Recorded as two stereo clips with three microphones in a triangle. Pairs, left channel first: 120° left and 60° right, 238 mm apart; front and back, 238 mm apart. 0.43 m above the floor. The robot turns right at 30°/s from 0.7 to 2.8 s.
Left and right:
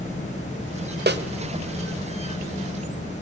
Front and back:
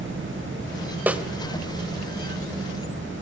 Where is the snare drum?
100° right, 1.2 m; by 1.2 s 95° right, 1.2 m.